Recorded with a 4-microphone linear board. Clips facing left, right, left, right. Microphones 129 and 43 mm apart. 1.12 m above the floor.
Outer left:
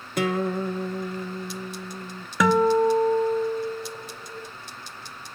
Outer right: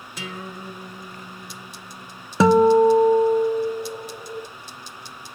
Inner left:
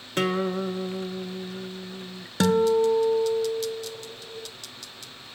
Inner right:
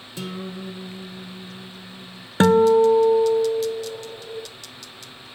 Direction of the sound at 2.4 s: 30° right (ahead or behind).